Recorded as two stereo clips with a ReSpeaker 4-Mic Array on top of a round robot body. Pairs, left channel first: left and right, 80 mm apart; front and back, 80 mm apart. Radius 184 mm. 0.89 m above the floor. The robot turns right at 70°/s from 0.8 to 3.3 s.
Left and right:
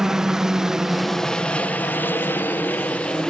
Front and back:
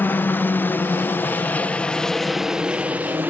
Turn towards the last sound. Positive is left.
turn(degrees=160)